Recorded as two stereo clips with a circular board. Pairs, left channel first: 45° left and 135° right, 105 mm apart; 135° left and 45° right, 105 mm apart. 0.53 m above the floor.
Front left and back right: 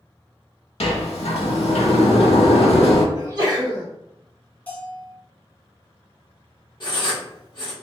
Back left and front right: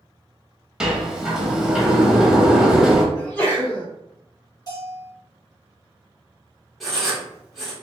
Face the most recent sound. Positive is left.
turn(degrees=45)